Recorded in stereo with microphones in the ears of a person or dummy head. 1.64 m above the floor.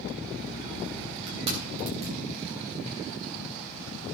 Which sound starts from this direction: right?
Crushing, at 1.3 s.